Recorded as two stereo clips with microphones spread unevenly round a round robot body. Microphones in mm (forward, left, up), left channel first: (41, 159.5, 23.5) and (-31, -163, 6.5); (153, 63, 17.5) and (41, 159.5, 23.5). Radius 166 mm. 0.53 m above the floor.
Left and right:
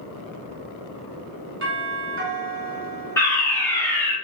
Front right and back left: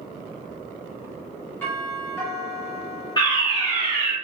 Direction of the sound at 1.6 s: 110° right.